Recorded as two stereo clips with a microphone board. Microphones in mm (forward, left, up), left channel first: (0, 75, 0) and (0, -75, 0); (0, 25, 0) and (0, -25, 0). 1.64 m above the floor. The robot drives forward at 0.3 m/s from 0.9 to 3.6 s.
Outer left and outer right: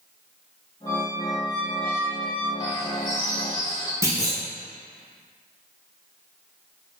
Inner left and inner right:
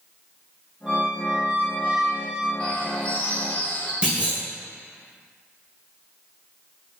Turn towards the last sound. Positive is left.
turn(degrees=-20)  # may be behind; listen again after turning